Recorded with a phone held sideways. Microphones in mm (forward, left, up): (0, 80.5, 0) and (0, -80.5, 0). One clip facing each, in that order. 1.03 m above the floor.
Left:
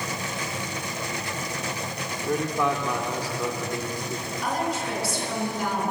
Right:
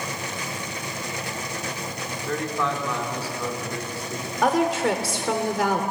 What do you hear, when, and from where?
2.2 s a man speaking: 15° left (ahead or behind), 3 m
4.4 s a woman speaking: 85° right, 3 m